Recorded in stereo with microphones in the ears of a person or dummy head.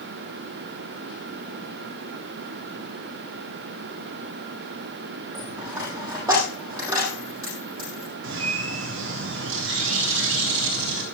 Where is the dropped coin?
20° right (ahead or behind), 6 m.